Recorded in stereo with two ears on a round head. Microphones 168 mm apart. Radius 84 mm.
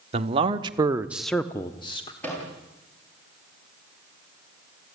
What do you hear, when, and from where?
0.1 s a man speaking: 35° right (ahead or behind), 1.6 m; by 2.1 s 30° left (ahead or behind), 1.4 m
2.2 s a microwave: 10° left (ahead or behind), 9 m